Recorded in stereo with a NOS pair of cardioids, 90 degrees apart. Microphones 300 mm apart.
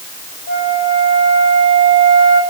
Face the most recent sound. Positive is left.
turn(degrees=60)